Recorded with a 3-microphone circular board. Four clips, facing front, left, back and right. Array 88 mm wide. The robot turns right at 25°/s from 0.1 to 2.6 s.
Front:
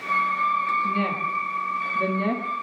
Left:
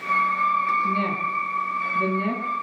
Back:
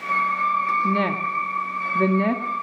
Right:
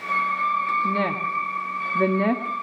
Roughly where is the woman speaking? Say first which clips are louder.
Even, back 3 dB; behind right.